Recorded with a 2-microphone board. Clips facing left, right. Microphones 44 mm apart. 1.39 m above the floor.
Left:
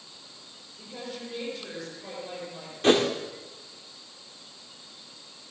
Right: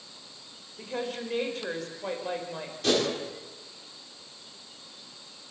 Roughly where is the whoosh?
Left.